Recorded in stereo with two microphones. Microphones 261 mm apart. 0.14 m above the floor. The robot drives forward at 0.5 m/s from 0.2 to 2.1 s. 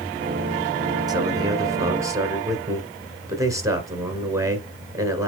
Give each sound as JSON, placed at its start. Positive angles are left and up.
{"t": 1.1, "sound": "a man speaking", "side_deg": -15, "distance_m": 1.4}